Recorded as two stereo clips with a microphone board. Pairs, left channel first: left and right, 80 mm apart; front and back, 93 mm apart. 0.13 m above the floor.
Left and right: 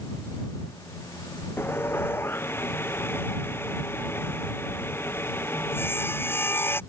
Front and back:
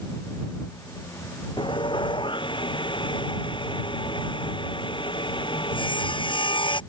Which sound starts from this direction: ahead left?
Sawing, at 1.6 s.